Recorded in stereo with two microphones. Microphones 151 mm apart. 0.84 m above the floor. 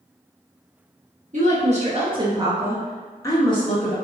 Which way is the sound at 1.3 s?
55° right (ahead or behind).